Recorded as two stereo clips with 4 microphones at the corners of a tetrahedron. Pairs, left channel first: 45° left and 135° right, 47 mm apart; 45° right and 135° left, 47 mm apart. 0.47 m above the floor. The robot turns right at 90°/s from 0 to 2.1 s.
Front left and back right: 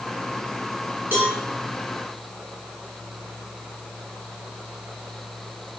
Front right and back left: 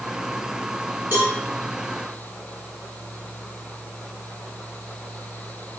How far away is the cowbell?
About 2.5 m.